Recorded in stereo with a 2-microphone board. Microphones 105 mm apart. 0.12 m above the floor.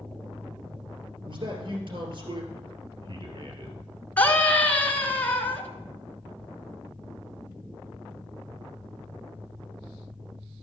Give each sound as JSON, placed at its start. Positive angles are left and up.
{"t": 1.2, "sound": "a man speaking", "side_deg": -50, "distance_m": 2.0}
{"t": 4.2, "sound": "a scream", "side_deg": 15, "distance_m": 1.2}